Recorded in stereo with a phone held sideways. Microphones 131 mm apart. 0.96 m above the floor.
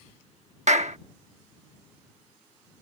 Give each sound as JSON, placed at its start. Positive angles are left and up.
{"t": 0.7, "sound": "a clap", "side_deg": -60}